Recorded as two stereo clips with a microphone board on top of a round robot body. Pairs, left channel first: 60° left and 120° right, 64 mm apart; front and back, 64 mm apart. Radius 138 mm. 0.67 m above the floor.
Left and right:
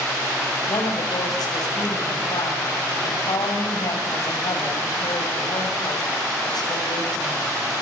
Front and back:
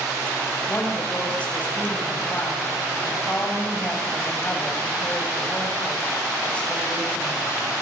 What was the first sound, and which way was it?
A woman speaking, 70° left.